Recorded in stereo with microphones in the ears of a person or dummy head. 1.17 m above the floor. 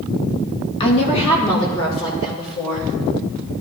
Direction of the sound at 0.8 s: 30° left (ahead or behind).